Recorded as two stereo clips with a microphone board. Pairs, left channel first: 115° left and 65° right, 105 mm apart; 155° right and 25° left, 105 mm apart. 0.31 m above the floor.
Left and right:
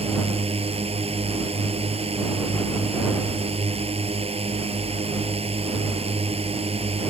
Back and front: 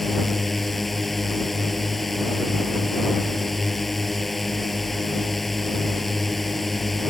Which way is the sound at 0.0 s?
70° right.